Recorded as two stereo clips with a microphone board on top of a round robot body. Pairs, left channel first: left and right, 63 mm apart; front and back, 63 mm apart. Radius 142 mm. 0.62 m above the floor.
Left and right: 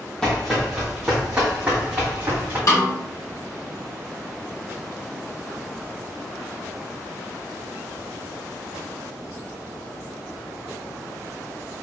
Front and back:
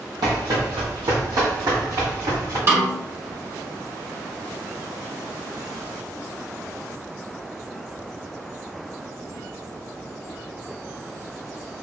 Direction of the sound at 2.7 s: 130° left.